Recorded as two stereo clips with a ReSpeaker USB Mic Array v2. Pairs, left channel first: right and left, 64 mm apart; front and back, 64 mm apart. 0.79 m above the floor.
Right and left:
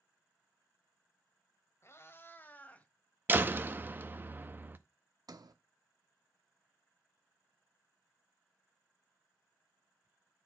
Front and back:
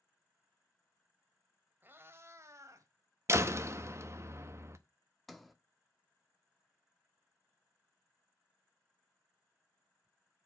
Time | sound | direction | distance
1.8 | a cat meowing | 125° right | 0.9 m
3.3 | a door slam | 145° left | 0.6 m
5.3 | a sliding door | 90° left | 0.7 m